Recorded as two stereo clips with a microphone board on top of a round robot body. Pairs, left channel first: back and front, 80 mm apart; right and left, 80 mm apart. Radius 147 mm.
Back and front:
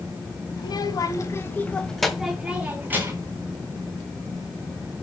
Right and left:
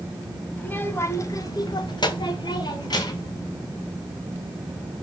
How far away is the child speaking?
About 2.5 m.